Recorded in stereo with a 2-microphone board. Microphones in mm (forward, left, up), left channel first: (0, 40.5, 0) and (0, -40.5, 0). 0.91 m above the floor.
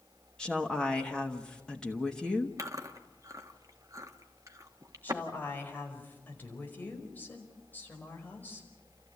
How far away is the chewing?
About 1.5 m.